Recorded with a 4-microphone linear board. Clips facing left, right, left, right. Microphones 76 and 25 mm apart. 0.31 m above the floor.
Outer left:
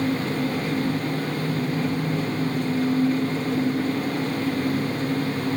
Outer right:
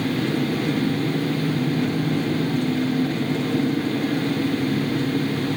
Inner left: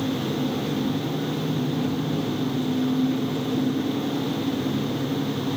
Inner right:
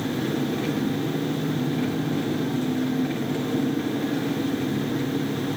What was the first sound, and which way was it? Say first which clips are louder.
An engine running: outer right 1 dB, even; 75° right (ahead or behind).